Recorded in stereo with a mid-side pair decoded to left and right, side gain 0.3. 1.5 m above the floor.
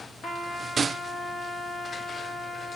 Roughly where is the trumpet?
Left.